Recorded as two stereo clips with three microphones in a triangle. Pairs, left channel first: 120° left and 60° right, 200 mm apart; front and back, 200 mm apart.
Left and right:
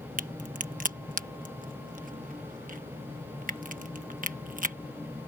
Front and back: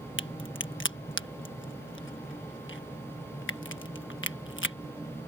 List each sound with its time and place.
0.2 s a crack: 10° right